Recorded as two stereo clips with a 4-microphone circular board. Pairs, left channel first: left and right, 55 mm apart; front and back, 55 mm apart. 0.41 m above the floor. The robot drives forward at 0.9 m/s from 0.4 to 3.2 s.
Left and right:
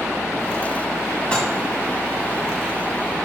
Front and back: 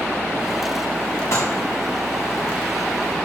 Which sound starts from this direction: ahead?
Dishes clattering, at 1.3 s.